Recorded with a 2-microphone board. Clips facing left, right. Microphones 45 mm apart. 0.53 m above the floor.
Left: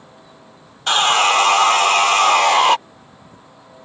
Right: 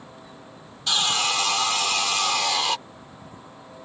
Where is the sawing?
50° left (ahead or behind).